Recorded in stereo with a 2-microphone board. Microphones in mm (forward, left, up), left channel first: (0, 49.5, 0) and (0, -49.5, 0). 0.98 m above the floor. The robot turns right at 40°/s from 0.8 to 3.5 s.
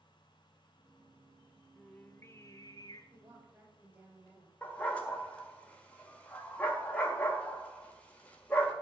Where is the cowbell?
I don't hear a cowbell.